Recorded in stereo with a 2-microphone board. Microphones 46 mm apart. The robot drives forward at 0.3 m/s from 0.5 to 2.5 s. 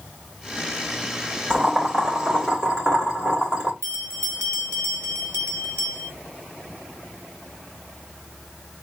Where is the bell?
65° right (ahead or behind), 1.7 m.